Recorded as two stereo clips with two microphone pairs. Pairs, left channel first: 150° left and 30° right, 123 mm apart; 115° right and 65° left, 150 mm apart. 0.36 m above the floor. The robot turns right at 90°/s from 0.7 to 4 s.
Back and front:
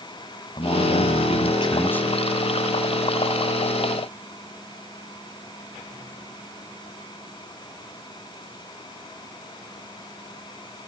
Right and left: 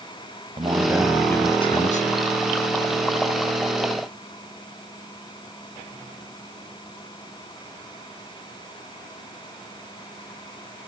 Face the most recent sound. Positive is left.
turn(degrees=50)